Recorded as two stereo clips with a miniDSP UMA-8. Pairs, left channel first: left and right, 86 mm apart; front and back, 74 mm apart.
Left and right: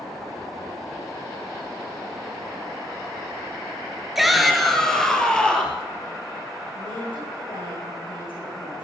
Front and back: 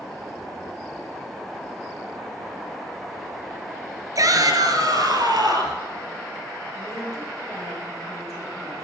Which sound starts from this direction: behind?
A shout, at 4.2 s.